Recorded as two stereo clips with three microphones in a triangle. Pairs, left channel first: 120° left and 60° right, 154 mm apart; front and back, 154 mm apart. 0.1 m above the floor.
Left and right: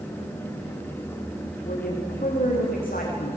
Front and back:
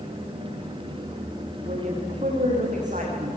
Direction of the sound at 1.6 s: 145° left.